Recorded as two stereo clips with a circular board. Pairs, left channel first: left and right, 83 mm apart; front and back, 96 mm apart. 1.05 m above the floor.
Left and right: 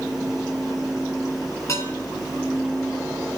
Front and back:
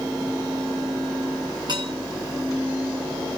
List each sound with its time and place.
1.7 s dishes clattering: 140° left, 4.5 m